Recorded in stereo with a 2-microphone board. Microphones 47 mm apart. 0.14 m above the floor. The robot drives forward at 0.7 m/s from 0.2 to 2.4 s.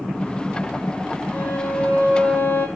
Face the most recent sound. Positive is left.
turn(degrees=45)  # may be behind; listen again after turning